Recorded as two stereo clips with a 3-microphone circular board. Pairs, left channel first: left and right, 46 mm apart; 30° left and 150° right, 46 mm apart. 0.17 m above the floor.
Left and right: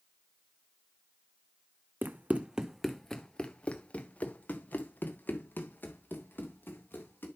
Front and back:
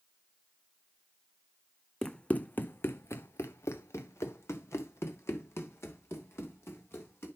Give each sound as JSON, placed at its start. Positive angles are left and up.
{"t": 2.0, "sound": "running footsteps", "azimuth_deg": -50, "distance_m": 0.8}